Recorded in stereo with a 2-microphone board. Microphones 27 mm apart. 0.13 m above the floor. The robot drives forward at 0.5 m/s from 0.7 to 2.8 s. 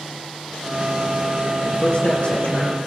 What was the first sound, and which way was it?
A man speaking, 45° left (ahead or behind).